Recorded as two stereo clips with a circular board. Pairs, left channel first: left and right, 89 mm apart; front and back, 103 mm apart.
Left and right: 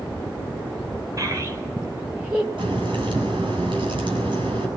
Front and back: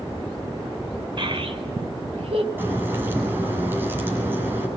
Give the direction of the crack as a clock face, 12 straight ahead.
4 o'clock.